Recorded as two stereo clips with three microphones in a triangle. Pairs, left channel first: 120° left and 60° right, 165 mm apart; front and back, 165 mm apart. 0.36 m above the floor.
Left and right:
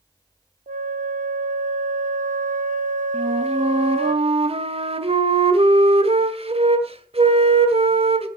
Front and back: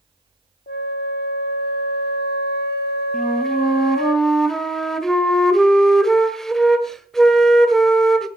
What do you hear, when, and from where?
0.7 s a flute: 20° right, 0.9 m
3.1 s a flute: 85° right, 1.4 m